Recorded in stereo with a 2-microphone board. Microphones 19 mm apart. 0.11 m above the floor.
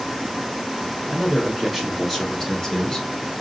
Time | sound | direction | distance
1.1 | a man speaking | 30° right (ahead or behind) | 2 m